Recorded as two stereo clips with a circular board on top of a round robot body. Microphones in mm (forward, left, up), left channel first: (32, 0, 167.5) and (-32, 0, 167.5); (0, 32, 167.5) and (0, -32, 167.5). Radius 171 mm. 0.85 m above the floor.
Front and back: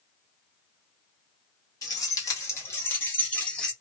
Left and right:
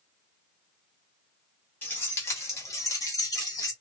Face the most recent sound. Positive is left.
turn(degrees=80)